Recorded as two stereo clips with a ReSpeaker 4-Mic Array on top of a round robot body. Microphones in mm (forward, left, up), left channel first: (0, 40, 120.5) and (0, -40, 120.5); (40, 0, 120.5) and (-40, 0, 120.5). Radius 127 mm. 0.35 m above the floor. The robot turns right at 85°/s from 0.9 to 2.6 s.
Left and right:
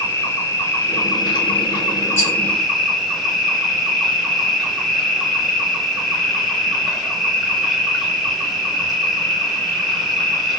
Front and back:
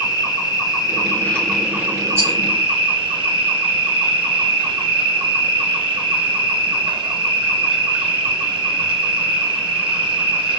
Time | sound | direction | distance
0.0 | an insect | 35° left | 1.1 m
2.2 | a rattle | 130° left | 1.8 m